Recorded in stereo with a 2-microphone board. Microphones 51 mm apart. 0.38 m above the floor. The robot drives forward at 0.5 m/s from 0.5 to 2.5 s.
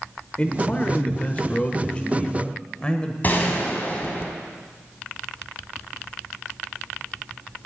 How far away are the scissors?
I don't hear scissors.